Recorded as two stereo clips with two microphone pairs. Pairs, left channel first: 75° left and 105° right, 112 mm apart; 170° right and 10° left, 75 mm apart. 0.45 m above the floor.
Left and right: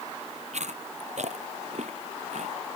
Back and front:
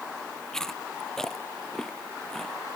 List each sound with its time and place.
0.5 s chewing: 85° right